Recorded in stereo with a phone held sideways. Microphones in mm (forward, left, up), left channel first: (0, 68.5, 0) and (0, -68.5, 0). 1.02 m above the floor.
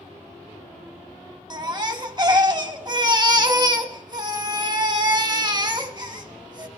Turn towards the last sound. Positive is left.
turn(degrees=-30)  # may be behind; listen again after turning